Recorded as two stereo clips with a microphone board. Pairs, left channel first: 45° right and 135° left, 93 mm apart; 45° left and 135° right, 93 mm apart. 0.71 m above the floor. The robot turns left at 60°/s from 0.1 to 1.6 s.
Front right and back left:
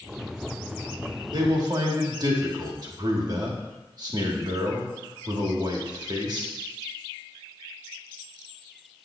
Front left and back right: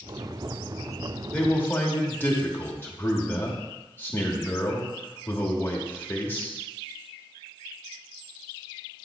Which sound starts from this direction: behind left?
A man speaking, at 1.3 s.